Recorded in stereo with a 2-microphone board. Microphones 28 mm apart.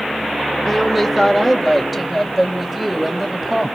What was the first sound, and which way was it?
A woman speaking, centre (ahead or behind).